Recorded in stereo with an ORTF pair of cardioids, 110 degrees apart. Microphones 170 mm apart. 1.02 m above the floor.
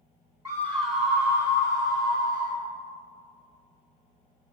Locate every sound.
0.5 s a scream: 15° right, 0.5 m; by 2.6 s 55° right, 3 m